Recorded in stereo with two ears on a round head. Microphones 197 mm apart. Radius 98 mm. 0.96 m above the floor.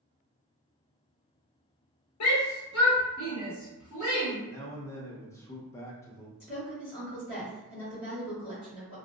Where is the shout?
70° left (ahead or behind), 0.9 m; by 4.4 s 45° left (ahead or behind), 1.9 m.